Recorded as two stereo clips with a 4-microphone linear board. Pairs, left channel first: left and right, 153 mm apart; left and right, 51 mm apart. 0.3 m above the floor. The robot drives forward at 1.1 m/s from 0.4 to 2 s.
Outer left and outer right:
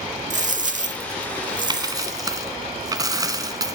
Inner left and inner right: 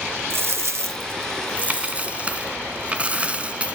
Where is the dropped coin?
50° right (ahead or behind), 0.9 m; by 3.8 s 25° right (ahead or behind), 1.7 m.